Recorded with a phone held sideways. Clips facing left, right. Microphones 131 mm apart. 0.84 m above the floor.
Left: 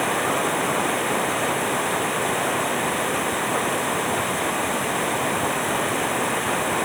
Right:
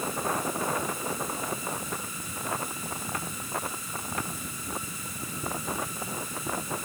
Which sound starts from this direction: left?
Running water, at 0.0 s.